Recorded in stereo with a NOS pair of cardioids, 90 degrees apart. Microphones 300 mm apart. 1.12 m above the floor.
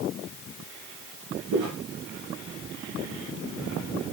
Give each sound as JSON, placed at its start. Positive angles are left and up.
{"t": 1.5, "sound": "footsteps", "azimuth_deg": -70, "distance_m": 4.0}